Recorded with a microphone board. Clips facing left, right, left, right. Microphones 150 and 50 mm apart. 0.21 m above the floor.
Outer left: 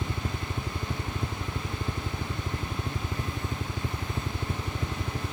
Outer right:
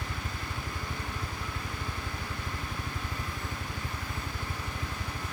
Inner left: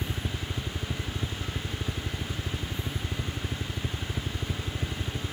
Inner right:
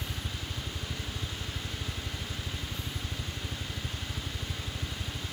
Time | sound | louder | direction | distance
0.0 | a helicopter | outer left 5 dB, inner left 4 dB | 45° left (ahead or behind) | ?